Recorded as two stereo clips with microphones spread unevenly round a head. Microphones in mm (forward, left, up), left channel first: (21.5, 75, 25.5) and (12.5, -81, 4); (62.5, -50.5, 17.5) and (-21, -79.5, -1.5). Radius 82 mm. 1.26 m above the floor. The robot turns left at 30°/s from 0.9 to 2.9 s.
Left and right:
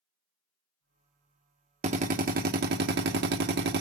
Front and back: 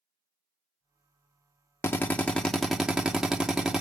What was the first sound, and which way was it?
A drill, 45° right.